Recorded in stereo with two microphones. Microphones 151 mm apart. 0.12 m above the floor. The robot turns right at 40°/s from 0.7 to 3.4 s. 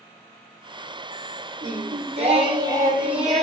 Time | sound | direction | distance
1.6 | singing | 70° right | 0.9 m